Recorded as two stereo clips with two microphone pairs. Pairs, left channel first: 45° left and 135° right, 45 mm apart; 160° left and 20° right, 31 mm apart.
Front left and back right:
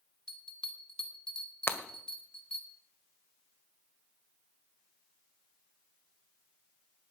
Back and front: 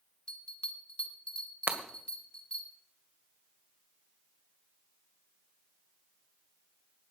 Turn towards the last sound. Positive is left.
turn(degrees=5)